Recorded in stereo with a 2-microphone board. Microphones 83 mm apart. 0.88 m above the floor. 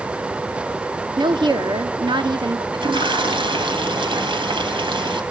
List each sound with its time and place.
1.2 s a woman speaking: 70° right (ahead or behind), 1.5 m
2.7 s a toilet flushing: 80° right, 3 m